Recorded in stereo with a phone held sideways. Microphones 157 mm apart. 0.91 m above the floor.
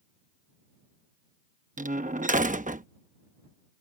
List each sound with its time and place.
1.8 s a door slam: 55° right (ahead or behind)